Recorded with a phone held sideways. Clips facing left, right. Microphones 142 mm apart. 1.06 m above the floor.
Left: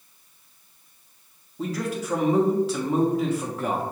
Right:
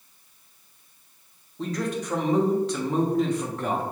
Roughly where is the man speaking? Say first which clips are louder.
Even; centre.